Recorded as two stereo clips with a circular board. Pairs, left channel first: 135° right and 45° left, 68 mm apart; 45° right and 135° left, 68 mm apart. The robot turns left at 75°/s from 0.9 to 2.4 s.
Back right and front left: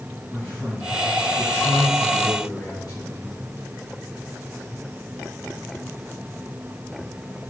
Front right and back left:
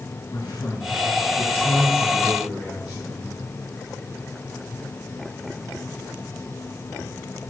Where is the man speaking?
35° right, 9 m; by 3.3 s 150° right, 9 m.